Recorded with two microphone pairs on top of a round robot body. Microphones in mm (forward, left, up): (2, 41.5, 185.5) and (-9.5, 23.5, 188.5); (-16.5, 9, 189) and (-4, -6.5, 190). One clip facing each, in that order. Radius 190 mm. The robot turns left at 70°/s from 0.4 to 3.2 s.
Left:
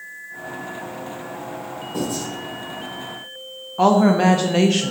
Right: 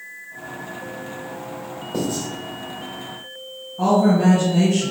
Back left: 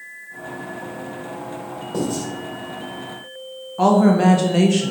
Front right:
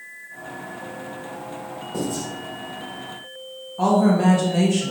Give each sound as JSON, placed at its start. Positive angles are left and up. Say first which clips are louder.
{"t": 1.9, "sound": "writing", "louder": "right 1 dB, back left 3 dB", "azimuth_deg": -165, "distance_m": 1.8}
{"t": 3.8, "sound": "a woman speaking", "louder": "left 2 dB, back left 3 dB", "azimuth_deg": 70, "distance_m": 0.7}